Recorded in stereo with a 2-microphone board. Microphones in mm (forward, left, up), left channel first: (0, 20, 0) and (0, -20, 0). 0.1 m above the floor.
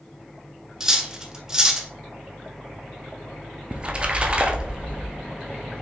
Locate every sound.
0.8 s cutlery clinking: 15° right (ahead or behind), 0.7 m
3.7 s a splash: 25° right (ahead or behind), 0.7 m